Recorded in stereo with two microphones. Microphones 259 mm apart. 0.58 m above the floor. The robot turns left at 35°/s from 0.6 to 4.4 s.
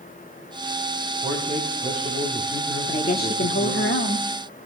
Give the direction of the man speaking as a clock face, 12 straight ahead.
6 o'clock.